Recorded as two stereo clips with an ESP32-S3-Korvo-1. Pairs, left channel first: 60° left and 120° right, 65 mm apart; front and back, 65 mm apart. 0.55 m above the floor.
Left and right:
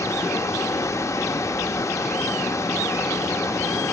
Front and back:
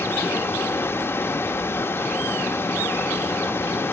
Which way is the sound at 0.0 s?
40° left.